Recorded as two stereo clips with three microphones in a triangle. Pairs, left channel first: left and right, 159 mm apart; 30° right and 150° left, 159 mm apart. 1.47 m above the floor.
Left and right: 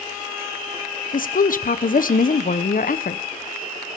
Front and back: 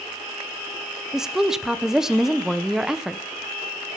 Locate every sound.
1.1 s a woman speaking: 65° left, 1.0 m